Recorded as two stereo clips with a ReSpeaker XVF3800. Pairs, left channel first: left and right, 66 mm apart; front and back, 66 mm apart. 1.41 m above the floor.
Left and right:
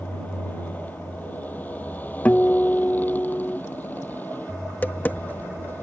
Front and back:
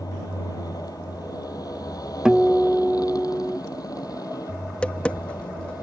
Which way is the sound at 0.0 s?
25° left.